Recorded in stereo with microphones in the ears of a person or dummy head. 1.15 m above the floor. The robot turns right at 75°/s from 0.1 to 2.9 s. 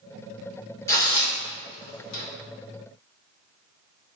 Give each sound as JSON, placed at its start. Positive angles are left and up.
{"t": 0.9, "sound": "tearing paper", "side_deg": 15, "distance_m": 0.9}